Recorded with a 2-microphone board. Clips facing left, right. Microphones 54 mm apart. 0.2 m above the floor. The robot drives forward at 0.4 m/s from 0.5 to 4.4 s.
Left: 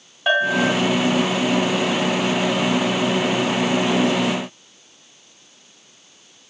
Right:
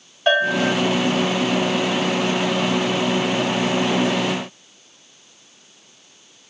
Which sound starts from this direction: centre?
A bell, at 0.3 s.